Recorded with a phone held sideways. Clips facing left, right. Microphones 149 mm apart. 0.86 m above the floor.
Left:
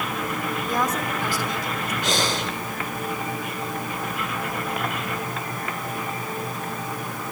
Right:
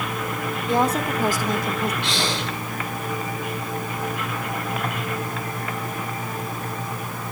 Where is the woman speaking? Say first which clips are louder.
Right 6 dB; 25° right (ahead or behind), 2.5 m; by 1.9 s 60° right (ahead or behind), 3 m.